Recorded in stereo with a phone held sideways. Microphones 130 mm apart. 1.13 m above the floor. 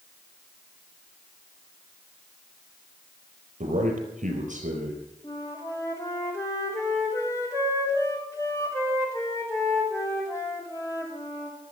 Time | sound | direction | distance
3.6 | a man speaking | 75° right (ahead or behind) | 4.5 m
5.2 | a flute | 25° left (ahead or behind) | 3 m